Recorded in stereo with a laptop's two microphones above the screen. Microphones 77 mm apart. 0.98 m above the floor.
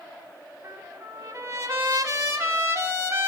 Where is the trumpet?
35° right (ahead or behind), 1.3 m.